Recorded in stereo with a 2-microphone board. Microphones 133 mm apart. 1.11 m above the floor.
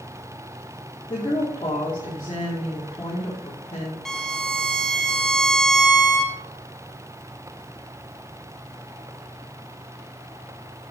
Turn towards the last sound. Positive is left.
turn(degrees=5)  # may be behind; listen again after turning